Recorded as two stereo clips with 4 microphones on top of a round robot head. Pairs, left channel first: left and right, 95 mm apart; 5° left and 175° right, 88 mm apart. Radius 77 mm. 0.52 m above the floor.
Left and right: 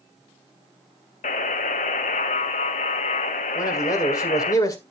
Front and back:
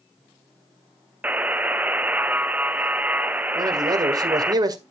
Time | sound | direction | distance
1.2 | a buzzer | 110° left | 0.6 m
3.5 | a man speaking | 145° left | 1.7 m